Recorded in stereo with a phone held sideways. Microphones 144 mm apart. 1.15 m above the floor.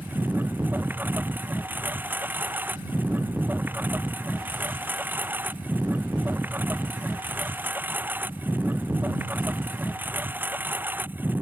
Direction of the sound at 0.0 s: 15° right (ahead or behind).